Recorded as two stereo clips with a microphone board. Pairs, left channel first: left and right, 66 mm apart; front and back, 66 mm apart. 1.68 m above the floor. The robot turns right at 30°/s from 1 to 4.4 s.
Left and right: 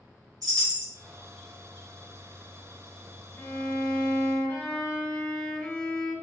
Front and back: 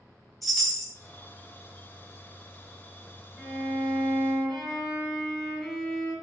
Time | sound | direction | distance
0.4 | a chime | 90° right | 1.1 m
3.4 | a violin | 55° left | 1.7 m